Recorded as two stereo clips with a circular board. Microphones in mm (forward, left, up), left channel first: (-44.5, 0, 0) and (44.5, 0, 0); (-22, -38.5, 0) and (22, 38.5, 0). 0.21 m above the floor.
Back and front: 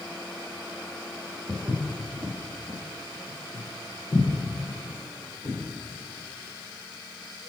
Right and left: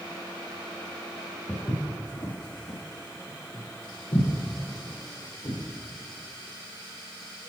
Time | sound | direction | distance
1.5 | footsteps | 55° right | 1.5 m